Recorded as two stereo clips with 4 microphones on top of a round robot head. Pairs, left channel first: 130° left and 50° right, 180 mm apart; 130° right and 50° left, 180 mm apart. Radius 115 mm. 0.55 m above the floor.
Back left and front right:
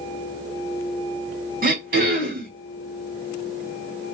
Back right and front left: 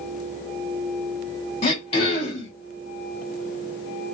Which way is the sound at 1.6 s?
75° right.